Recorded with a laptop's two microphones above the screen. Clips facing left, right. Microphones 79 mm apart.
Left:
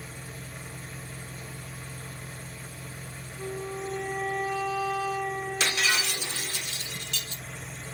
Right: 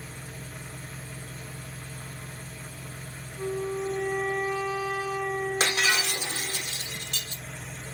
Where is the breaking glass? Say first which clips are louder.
Even; 40° right (ahead or behind), 0.7 m.